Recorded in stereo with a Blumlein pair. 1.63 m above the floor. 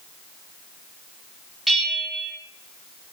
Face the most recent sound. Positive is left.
turn(degrees=-5)